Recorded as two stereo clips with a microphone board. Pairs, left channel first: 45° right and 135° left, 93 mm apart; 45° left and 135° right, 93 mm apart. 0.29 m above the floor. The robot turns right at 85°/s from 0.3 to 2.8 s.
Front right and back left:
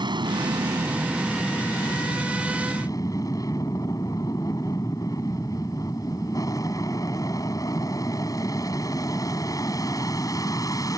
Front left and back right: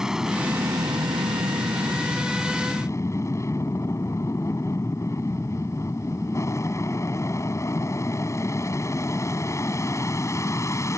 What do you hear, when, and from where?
0.0 s an aircraft: 140° left; by 11.0 s 5° right